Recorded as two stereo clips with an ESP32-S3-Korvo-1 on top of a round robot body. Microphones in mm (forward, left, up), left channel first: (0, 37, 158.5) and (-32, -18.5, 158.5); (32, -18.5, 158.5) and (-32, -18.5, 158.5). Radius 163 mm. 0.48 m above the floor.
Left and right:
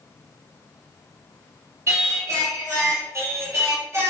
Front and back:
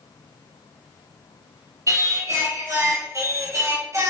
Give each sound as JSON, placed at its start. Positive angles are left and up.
{"t": 1.9, "sound": "singing", "azimuth_deg": -155, "distance_m": 1.5}